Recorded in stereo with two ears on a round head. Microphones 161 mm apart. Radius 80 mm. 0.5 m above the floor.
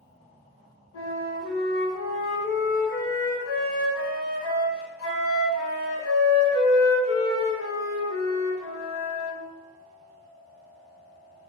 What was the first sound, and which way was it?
A flute, 85° left.